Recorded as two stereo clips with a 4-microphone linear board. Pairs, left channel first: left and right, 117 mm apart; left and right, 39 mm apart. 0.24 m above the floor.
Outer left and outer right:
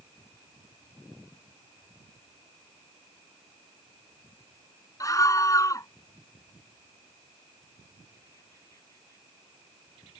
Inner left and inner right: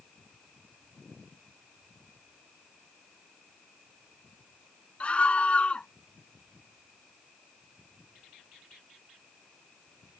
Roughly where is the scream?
Left.